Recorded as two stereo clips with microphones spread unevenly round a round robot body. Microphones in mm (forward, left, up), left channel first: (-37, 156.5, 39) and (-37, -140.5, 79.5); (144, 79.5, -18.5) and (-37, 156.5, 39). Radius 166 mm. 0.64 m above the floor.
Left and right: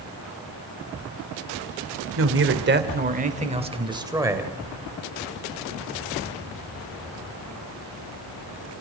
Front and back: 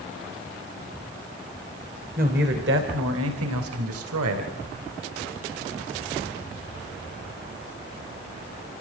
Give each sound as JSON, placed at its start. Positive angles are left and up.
{"t": 2.2, "sound": "a man speaking", "azimuth_deg": -135, "distance_m": 2.5}